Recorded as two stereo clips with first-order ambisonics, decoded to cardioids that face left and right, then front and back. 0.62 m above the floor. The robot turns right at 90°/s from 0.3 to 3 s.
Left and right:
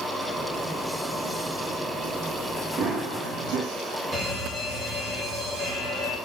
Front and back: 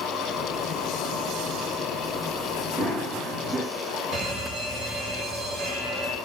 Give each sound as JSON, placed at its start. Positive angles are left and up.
{"t": 2.8, "sound": "running footsteps", "azimuth_deg": -125, "distance_m": 2.5}
{"t": 4.1, "sound": "an alarm", "azimuth_deg": -150, "distance_m": 2.5}